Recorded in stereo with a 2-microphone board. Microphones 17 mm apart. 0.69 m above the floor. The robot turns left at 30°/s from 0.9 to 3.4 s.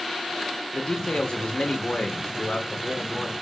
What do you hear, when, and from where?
0.7 s a man speaking: 100° left, 2 m; by 3.3 s 30° left, 2 m